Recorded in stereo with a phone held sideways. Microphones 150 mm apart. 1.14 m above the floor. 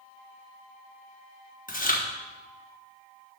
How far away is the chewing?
About 1.4 m.